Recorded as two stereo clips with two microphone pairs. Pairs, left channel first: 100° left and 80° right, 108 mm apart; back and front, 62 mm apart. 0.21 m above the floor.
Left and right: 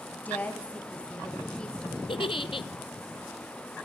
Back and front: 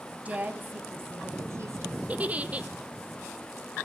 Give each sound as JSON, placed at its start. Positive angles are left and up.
{"t": 0.1, "sound": "a woman speaking", "azimuth_deg": 45, "distance_m": 1.0}
{"t": 2.1, "sound": "a giggle", "azimuth_deg": 65, "distance_m": 0.5}